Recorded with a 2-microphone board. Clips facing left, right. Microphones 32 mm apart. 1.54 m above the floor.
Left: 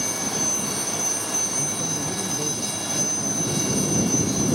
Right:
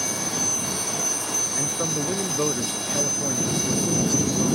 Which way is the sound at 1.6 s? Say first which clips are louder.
Right 1 dB; 70° right (ahead or behind).